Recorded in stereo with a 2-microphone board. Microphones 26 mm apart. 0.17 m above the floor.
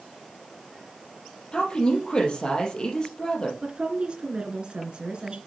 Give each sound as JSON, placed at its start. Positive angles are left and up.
{"t": 1.5, "sound": "a woman speaking", "side_deg": 35, "distance_m": 3.5}
{"t": 3.6, "sound": "a woman speaking", "side_deg": -35, "distance_m": 2.0}